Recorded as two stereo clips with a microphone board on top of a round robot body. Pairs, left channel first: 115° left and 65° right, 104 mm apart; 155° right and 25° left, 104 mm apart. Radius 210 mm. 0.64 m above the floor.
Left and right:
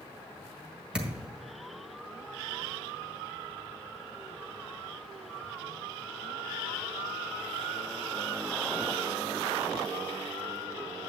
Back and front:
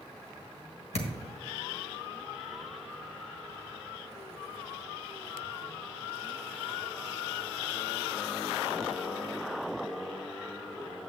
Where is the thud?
150° right, 1.7 m.